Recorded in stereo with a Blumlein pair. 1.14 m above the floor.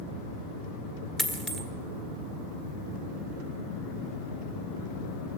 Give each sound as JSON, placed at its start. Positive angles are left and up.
{"t": 1.2, "sound": "a dropped coin", "azimuth_deg": 0, "distance_m": 1.7}